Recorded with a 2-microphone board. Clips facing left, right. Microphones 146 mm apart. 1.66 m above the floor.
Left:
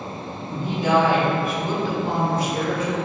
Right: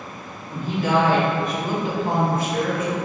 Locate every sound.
0.5 s a woman speaking: 25° left (ahead or behind), 1.9 m; by 3.0 s 50° right (ahead or behind), 1.3 m